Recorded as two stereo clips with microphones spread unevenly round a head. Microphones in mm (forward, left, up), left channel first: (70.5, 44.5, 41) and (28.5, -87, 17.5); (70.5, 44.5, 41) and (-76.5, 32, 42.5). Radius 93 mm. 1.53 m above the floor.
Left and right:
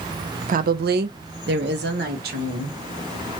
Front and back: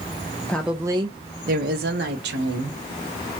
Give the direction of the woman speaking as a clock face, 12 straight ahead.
3 o'clock.